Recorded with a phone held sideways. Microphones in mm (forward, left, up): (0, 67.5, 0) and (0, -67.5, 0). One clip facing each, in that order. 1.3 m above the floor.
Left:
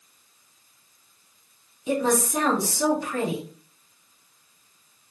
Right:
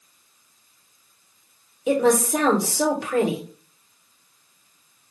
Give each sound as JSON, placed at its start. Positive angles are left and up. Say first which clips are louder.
{"t": 1.9, "sound": "a woman speaking", "louder": "right 5 dB", "side_deg": -75, "distance_m": 1.3}